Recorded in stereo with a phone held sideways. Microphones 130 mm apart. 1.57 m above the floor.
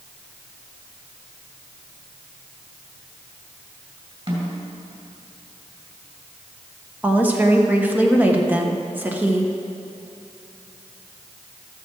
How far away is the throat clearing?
I don't hear throat clearing.